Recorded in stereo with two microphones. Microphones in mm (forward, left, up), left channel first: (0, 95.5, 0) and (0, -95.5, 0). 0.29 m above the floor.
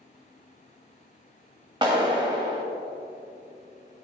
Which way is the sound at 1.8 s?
25° right (ahead or behind).